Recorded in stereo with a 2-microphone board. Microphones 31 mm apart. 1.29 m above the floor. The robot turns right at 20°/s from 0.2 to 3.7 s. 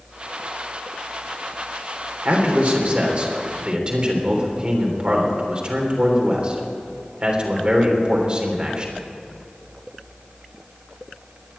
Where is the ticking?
No ticking in this recording.